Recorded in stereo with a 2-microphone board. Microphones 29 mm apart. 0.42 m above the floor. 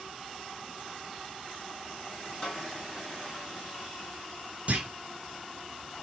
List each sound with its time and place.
2.4 s a snare drum: 30° left (ahead or behind), 3 m
4.7 s a clunk: 45° right (ahead or behind), 1.0 m